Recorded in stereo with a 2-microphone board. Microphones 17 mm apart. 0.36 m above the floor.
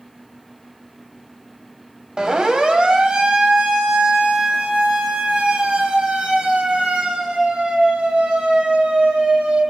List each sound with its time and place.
2.2 s a siren: 45° right (ahead or behind), 3 m; by 9.6 s 70° right (ahead or behind), 8 m